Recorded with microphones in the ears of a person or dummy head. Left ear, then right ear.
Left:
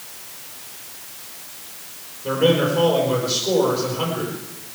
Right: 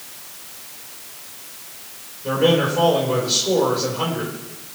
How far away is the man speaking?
About 4.5 m.